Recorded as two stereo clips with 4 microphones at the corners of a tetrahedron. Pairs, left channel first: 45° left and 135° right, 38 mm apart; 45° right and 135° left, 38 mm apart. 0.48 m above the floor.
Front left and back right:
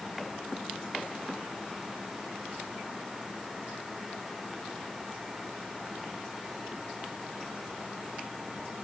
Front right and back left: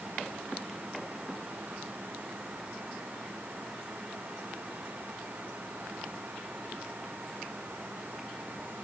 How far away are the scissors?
No scissors in this recording.